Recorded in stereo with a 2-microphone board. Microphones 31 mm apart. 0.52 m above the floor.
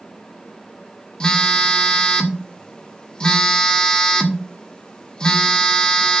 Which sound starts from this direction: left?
A phone buzzing, at 1.2 s.